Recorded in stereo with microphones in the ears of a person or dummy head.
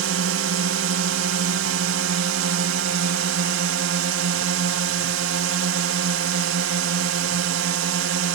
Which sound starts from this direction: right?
A drone, at 0.0 s.